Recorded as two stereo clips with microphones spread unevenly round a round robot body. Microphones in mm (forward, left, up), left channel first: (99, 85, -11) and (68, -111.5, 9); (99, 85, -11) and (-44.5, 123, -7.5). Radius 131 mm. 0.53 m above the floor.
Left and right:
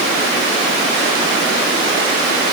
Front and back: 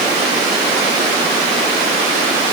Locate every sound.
Only background noise.